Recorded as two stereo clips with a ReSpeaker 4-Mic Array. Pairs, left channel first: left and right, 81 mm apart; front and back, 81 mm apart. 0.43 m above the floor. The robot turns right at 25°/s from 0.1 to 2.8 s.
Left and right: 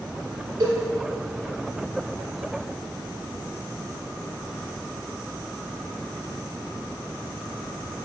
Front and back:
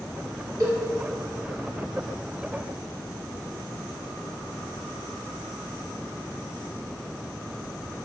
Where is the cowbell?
135° right, 2.5 m; by 0.8 s 130° right, 2.5 m.